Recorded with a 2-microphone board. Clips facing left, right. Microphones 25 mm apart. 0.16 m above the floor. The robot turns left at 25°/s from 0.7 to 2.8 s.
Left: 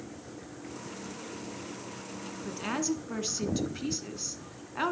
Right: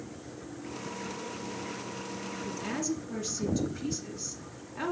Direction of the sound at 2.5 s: 35° left (ahead or behind).